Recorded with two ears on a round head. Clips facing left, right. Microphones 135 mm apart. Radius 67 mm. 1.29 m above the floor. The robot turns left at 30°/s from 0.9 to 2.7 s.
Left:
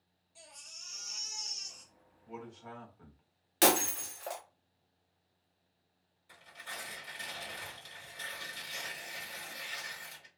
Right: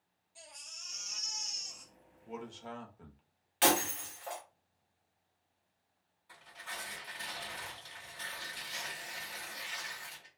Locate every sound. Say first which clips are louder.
0.3 s a baby crying: right 1 dB; 170° left, 1.5 m; by 1.9 s 140° left, 1.5 m
2.3 s a man speaking: right 2 dB; 45° right (ahead or behind), 0.6 m; by 3.2 s 30° right (ahead or behind), 0.6 m
3.6 s breaking glass: left 2 dB; 50° left (ahead or behind), 0.6 m
6.3 s tearing paper: right 1 dB; 30° left (ahead or behind), 1.5 m